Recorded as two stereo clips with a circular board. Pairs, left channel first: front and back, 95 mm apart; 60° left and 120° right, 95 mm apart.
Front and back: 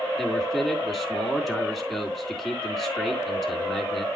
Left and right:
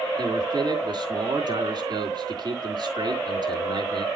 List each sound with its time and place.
0.2 s a man speaking: 90° right, 3.5 m